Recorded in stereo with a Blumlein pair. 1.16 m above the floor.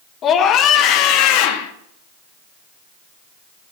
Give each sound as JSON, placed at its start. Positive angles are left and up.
{"t": 0.2, "sound": "a scream", "azimuth_deg": 30, "distance_m": 1.7}